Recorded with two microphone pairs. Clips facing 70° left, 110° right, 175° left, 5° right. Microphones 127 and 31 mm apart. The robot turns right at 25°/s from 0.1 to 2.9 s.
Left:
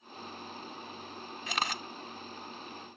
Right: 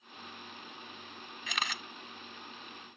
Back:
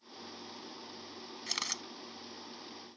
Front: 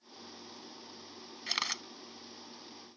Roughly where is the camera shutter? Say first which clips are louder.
Left 4 dB, front 4 dB; ahead left.